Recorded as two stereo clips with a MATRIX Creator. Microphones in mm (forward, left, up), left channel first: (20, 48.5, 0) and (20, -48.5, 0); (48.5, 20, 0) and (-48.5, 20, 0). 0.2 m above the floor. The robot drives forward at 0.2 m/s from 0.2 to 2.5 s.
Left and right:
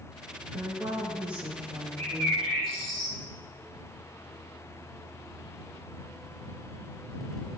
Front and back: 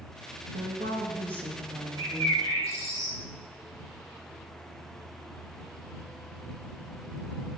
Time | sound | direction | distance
0.5 | a woman speaking | 170° right | 7 m
2.0 | a bird | 170° left | 7.5 m